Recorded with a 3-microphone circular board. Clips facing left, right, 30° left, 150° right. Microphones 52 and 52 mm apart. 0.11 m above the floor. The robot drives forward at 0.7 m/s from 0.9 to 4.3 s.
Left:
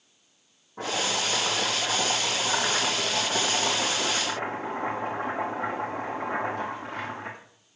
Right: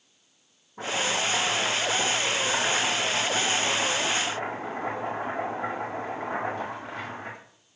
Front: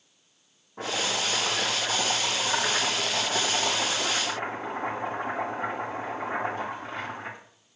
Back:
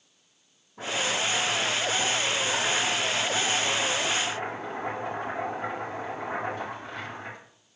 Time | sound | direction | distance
0.8 | chopping | 60° left | 5.5 m